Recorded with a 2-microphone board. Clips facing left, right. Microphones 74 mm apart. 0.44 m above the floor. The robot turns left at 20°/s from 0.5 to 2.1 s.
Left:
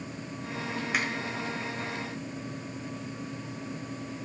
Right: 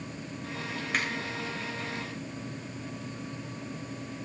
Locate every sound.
0.9 s a finger snap: 5° left (ahead or behind), 1.5 m; by 1.1 s 10° left (ahead or behind), 1.5 m